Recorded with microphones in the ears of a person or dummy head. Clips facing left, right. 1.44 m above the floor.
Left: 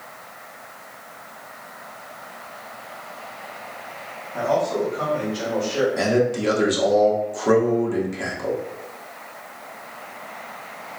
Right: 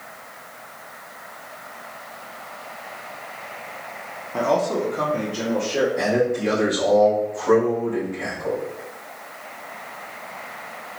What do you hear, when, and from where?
4.3 s a man speaking: 75° right (ahead or behind), 1.0 m; by 5.9 s 40° right (ahead or behind), 1.4 m
6.0 s a man speaking: 75° left (ahead or behind), 1.4 m